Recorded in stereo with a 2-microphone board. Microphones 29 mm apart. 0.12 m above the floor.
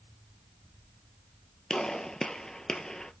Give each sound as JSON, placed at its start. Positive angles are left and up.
{"t": 1.7, "sound": "a gunshot", "side_deg": 25, "distance_m": 0.5}